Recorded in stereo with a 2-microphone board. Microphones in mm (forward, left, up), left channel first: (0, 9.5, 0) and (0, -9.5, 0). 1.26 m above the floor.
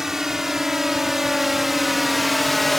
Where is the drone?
20° right (ahead or behind); by 2.8 s 10° left (ahead or behind).